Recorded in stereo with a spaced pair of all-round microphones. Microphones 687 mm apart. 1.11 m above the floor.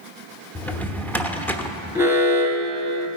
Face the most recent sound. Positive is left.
turn(degrees=-5)  # may be behind; listen again after turning